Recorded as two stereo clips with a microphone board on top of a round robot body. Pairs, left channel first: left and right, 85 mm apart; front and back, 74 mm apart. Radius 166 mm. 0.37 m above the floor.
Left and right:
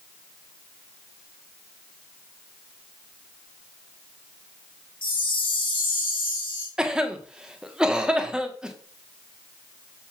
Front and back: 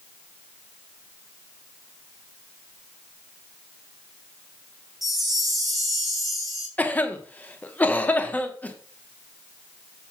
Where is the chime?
90° left, 2.0 m.